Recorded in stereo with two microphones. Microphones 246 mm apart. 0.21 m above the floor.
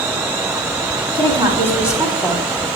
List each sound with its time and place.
1.1 s a woman speaking: 20° right (ahead or behind), 1.5 m; by 2.7 s 15° left (ahead or behind), 1.5 m